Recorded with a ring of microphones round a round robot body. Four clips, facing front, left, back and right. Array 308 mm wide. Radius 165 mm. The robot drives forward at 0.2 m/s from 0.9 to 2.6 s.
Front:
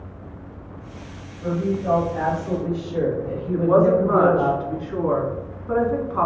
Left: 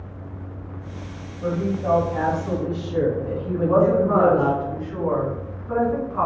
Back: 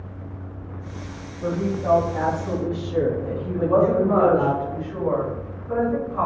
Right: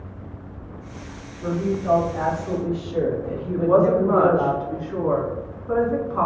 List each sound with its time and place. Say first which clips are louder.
1.4 s a woman speaking: even, front 1 dB; 140° left, 1.5 m; by 4.5 s 145° left, 1.7 m
3.5 s a woman speaking: right 1 dB, front 2 dB; 35° right, 1.9 m